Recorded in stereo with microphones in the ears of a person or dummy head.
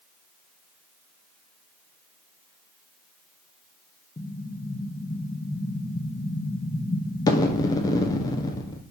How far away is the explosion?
About 0.9 m.